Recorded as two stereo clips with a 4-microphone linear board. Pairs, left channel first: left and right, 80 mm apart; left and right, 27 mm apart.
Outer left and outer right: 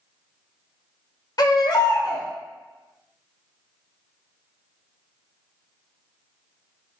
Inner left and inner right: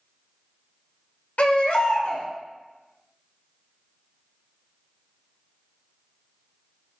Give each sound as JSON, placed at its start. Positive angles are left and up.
{"t": 1.4, "sound": "a baby crying", "side_deg": 55, "distance_m": 0.5}